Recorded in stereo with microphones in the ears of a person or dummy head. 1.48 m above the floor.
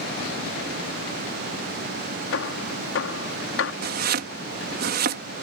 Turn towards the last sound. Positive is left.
turn(degrees=-50)  # may be behind; listen again after turning